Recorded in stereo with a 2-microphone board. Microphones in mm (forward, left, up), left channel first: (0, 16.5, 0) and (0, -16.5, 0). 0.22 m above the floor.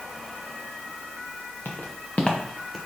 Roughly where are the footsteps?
Left.